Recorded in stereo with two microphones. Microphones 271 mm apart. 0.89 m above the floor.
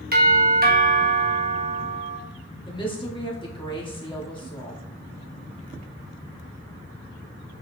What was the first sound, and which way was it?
A doorbell, 35° right (ahead or behind).